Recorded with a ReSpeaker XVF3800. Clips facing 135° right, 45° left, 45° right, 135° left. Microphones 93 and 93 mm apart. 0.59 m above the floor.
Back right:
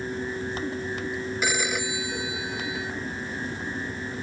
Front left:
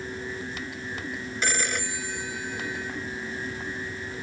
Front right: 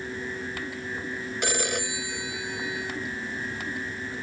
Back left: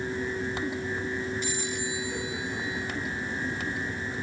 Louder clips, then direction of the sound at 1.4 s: Even, front right 4 dB; 50° right.